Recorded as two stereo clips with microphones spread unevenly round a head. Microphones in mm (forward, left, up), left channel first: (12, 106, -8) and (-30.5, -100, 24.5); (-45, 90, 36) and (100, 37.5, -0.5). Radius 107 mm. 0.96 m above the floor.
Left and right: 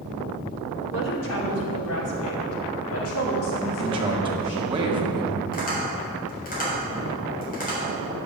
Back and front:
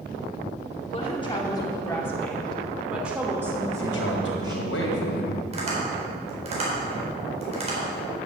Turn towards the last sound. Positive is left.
turn(degrees=25)